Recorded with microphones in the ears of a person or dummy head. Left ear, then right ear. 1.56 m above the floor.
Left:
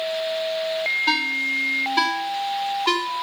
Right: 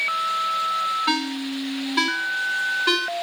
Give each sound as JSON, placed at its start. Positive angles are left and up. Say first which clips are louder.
{"t": 1.1, "sound": "a ringtone", "louder": "left 4 dB", "side_deg": 10, "distance_m": 1.6}